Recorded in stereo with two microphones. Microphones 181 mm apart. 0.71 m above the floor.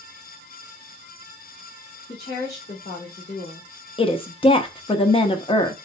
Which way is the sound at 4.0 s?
30° left (ahead or behind).